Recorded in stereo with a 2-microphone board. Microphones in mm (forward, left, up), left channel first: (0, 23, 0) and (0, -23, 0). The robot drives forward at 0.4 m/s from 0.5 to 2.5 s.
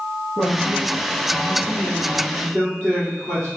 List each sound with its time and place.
0.4 s a man speaking: centre (ahead or behind), 1.6 m